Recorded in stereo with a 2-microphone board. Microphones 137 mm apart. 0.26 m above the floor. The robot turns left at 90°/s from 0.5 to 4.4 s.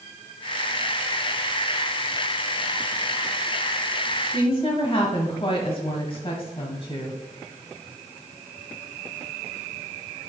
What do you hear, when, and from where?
4.3 s a woman speaking: 40° left (ahead or behind), 1.4 m